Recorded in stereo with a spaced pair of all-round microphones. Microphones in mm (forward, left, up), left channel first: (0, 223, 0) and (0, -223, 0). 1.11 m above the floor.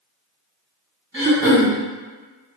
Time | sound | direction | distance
1.1 | throat clearing | 10° right (ahead or behind) | 1.7 m